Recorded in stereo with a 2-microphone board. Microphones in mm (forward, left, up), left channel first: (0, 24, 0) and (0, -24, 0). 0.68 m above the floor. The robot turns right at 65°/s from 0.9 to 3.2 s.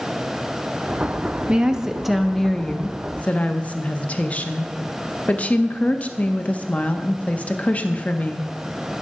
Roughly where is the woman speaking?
Ahead right.